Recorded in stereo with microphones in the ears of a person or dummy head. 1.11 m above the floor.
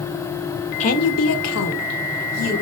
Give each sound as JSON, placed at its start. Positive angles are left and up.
{"t": 0.8, "sound": "a woman speaking", "side_deg": 35, "distance_m": 0.6}